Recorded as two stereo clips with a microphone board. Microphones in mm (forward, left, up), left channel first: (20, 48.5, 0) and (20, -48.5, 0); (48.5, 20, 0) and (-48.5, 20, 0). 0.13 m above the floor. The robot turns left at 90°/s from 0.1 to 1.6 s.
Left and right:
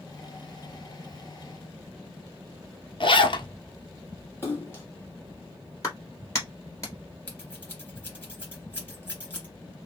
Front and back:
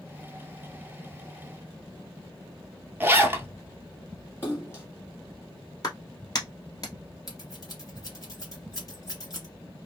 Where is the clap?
40° left, 1.8 m.